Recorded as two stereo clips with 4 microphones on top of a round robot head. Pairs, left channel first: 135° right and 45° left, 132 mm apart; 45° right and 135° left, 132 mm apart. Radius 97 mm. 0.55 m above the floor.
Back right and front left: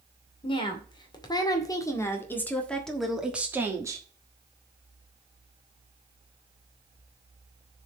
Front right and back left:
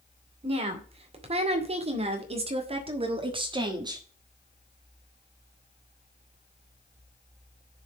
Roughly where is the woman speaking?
Behind.